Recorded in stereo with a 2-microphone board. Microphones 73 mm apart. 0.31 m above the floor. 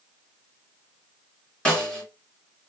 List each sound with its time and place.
1.6 s a snare drum: 15° left (ahead or behind), 2.5 m